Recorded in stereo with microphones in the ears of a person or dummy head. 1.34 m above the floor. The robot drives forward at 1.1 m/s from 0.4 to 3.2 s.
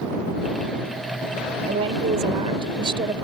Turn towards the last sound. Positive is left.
turn(degrees=-30)  # may be behind; listen again after turning